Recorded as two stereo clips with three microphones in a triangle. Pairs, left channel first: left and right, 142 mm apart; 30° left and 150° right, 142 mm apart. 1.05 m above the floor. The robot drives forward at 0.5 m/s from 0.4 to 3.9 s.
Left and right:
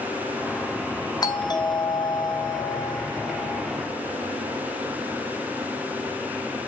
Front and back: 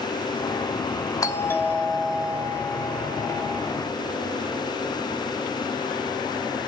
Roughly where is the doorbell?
Ahead left.